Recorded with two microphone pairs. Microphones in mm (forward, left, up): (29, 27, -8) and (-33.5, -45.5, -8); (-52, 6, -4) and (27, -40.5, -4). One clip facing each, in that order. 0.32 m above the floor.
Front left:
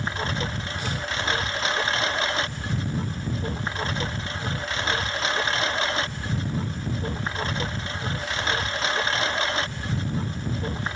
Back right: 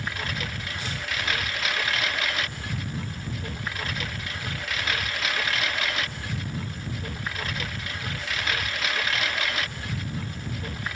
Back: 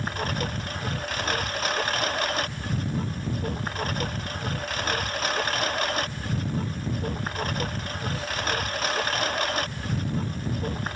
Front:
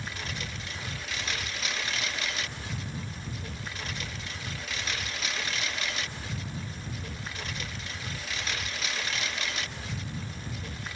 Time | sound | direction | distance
0.0 | a lawn mower | 110° left | ?